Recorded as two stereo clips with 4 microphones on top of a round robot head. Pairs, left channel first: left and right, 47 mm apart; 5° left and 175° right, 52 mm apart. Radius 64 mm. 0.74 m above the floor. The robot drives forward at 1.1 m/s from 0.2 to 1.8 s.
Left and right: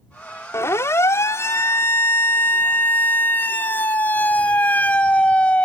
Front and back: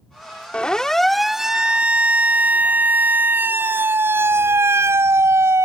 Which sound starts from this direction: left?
A siren, at 0.5 s.